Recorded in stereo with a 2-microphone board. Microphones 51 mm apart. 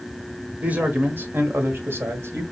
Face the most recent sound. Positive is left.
turn(degrees=-55)  # may be behind; listen again after turning